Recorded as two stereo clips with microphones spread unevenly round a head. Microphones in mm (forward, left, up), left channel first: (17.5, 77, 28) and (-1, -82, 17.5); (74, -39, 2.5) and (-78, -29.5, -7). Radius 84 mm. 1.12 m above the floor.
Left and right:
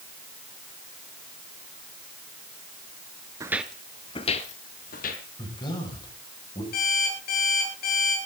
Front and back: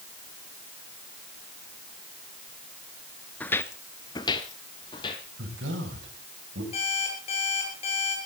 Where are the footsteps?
50° right, 1.1 m; by 5.2 s 55° left, 2.5 m.